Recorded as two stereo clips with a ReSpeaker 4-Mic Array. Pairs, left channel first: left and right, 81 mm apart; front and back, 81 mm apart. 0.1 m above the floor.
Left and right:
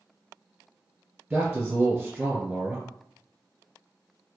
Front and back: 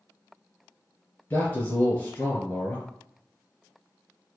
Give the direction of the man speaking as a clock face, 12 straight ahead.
1 o'clock.